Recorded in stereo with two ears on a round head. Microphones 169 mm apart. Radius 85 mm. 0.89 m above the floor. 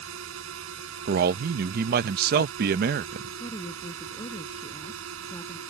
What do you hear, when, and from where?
0.0 s a drone: 85° right
1.1 s a man speaking: 50° right (ahead or behind)
3.4 s a woman speaking: 25° left (ahead or behind)